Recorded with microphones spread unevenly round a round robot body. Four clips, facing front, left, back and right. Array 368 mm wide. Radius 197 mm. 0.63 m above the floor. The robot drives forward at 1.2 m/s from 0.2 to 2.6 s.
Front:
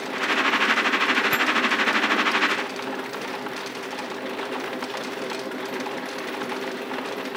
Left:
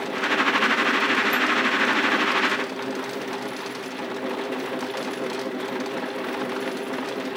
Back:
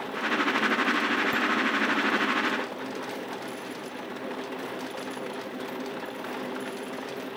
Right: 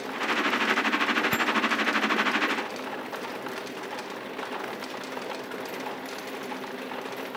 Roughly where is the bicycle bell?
Ahead right.